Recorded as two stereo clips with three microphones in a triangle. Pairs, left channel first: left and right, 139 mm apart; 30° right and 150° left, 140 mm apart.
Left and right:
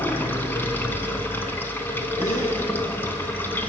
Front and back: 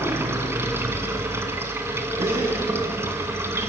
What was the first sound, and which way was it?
Running water, 130° left.